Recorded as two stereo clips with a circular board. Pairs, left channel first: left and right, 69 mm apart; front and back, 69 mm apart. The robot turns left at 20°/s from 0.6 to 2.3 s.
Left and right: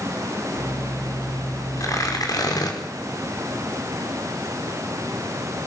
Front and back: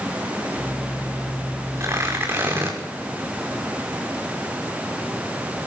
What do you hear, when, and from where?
1.8 s tearing paper: 130° left, 5.5 m; by 2.8 s 120° left, 5.5 m